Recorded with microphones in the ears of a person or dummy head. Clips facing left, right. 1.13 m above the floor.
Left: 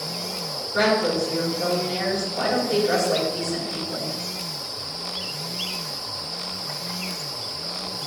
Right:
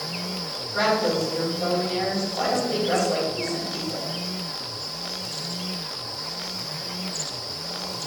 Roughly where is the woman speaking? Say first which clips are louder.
Left 2 dB; left.